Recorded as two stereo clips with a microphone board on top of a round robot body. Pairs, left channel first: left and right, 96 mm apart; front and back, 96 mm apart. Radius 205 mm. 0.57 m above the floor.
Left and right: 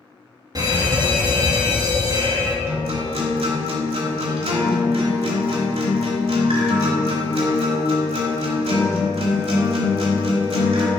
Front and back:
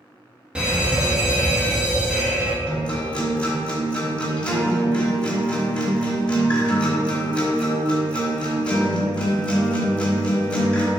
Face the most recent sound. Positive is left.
turn(degrees=-80)